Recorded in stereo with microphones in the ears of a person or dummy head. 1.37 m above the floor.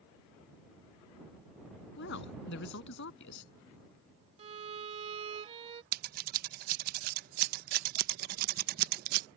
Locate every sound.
2.0 s a woman speaking: 60° left (ahead or behind)
4.4 s a violin: 30° right (ahead or behind)
5.9 s scissors: 50° right (ahead or behind)